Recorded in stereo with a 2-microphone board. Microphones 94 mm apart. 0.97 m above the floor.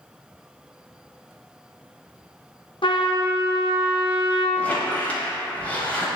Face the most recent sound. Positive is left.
turn(degrees=15)  # may be behind; listen again after turning